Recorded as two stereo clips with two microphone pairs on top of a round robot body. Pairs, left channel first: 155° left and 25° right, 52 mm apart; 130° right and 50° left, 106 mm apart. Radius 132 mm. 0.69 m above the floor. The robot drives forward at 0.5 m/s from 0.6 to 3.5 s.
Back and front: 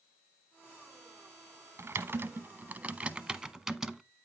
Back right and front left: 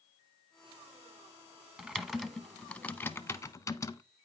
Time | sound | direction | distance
1.8 | typing on a keyboard | 30° right | 1.1 m